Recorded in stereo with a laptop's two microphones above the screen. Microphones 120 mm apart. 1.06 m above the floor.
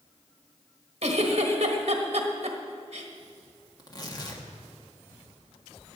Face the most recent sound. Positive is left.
turn(degrees=35)  # may be behind; listen again after turning